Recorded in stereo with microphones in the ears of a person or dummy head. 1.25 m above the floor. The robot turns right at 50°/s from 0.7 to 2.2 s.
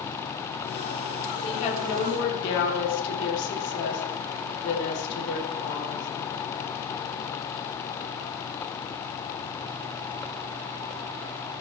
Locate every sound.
1.4 s a woman speaking: 30° left, 3 m; by 6.1 s 70° left, 3 m